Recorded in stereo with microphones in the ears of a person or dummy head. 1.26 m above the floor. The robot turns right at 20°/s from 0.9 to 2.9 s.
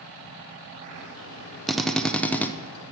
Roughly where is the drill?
Centre.